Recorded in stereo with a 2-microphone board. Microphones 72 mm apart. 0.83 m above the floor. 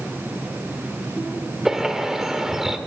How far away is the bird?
About 1.6 m.